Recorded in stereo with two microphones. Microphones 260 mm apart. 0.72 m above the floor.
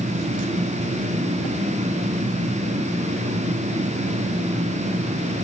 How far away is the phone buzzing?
No phone buzzing in this recording.